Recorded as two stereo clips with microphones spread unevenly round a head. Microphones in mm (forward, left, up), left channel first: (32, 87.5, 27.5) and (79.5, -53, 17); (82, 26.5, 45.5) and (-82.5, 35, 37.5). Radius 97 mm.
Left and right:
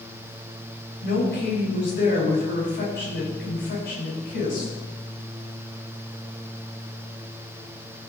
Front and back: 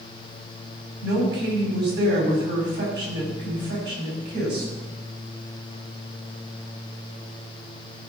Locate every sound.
1.0 s a woman speaking: 155° left, 6 m